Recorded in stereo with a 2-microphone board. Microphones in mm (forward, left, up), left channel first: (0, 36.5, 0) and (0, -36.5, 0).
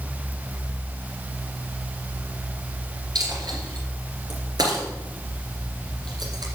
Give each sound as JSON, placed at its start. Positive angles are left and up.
{"t": 3.1, "sound": "a dropped coin", "side_deg": -65, "distance_m": 2.5}